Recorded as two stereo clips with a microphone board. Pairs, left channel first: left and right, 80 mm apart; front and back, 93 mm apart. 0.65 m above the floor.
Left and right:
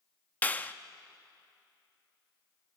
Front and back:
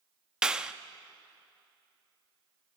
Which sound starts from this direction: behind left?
A clap, at 0.4 s.